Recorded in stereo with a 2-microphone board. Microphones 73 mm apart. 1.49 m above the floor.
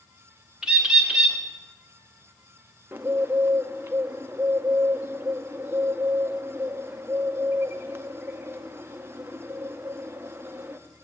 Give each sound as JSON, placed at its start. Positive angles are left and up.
{"t": 0.6, "sound": "a bird", "side_deg": -10, "distance_m": 1.1}
{"t": 2.9, "sound": "a bird", "side_deg": -30, "distance_m": 0.5}